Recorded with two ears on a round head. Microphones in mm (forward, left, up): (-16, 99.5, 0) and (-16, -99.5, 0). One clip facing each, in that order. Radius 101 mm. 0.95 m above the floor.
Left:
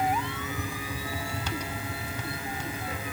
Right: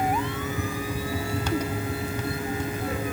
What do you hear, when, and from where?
Only background noise.